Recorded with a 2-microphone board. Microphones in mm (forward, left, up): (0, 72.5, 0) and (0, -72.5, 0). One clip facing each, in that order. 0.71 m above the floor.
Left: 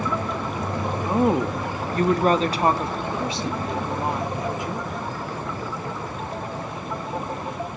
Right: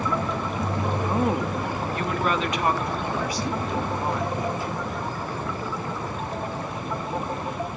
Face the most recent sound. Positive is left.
turn(degrees=20)  # may be behind; listen again after turning